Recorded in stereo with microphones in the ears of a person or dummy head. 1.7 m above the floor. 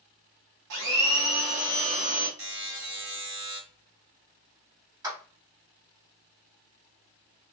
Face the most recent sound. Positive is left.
turn(degrees=-15)  # may be behind; listen again after turning